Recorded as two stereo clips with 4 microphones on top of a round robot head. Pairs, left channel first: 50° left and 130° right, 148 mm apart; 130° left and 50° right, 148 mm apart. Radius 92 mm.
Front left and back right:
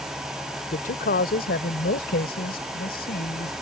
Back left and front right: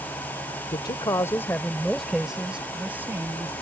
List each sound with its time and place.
0.7 s a man speaking: 75° left; by 3.5 s 25° left